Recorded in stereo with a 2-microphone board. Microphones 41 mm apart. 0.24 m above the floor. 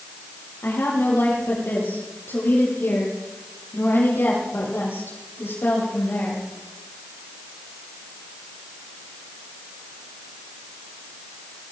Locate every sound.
0.6 s a woman speaking: 80° left, 7 m; by 6.4 s 70° left (ahead or behind), 10.5 m